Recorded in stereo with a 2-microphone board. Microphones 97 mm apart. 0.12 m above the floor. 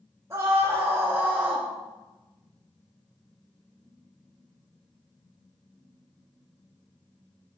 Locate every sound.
0.3 s a scream: 30° right (ahead or behind), 2.5 m; by 1.7 s 10° right (ahead or behind), 2 m